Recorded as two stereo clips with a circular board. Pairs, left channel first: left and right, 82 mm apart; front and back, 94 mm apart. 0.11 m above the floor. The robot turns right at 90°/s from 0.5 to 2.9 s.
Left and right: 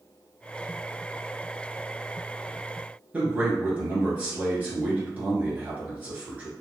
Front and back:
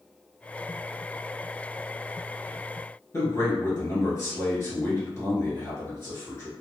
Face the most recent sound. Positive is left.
turn(degrees=-35)